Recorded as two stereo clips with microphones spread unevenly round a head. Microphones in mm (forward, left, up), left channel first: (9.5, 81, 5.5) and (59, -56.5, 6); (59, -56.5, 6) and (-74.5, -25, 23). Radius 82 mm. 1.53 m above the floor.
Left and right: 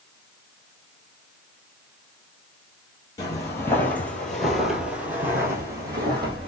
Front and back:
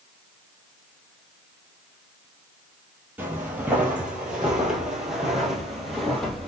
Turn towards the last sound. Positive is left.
turn(degrees=-110)